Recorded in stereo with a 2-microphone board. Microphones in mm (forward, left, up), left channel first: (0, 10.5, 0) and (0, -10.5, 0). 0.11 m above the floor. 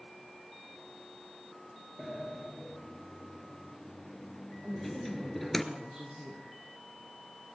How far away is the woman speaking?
About 6.5 m.